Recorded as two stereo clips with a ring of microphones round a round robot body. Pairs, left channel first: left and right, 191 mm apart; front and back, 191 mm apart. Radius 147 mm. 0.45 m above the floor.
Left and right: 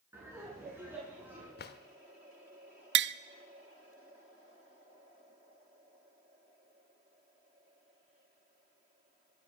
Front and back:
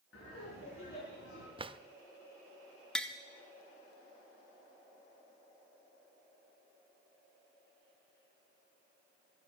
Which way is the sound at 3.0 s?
85° right.